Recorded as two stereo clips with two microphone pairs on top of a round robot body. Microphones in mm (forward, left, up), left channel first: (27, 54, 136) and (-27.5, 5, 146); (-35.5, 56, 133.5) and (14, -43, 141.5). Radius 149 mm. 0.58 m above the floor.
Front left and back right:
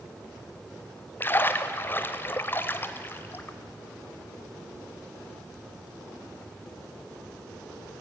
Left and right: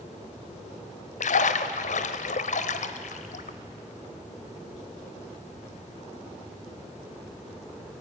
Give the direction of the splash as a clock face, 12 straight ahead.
8 o'clock.